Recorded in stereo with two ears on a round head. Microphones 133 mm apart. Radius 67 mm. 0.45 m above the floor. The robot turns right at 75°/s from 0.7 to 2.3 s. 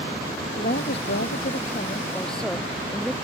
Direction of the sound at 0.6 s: 55° left.